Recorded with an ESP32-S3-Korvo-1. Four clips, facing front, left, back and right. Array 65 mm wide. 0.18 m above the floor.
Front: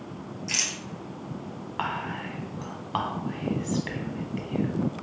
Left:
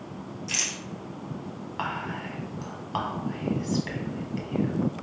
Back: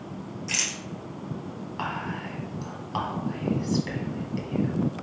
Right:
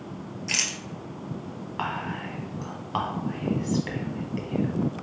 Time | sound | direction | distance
0.5 | a rattle | 95° right | 1.0 m
1.8 | whispering | 20° right | 1.2 m